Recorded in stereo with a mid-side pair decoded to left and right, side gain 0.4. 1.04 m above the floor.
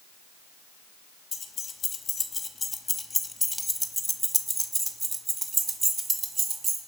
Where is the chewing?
I don't hear chewing.